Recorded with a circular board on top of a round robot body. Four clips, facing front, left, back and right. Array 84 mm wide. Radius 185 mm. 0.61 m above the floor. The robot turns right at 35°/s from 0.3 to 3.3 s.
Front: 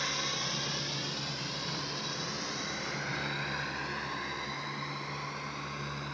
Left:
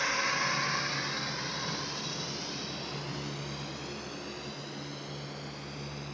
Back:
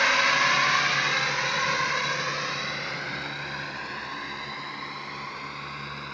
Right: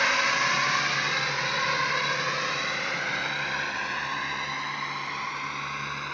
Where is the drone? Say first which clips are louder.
Right 6 dB, back 14 dB; 150° right; by 6.2 s 100° right.